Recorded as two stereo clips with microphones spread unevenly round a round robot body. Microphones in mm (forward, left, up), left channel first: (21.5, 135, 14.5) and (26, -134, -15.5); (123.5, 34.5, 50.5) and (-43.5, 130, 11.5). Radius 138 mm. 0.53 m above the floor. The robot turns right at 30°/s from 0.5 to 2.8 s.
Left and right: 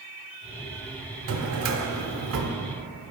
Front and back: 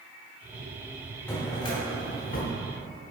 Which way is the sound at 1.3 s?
120° right.